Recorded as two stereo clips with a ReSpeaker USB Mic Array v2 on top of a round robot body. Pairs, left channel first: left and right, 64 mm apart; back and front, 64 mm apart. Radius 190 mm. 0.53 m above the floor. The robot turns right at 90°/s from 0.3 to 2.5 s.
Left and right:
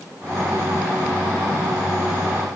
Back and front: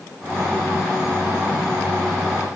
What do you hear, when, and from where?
Only background noise.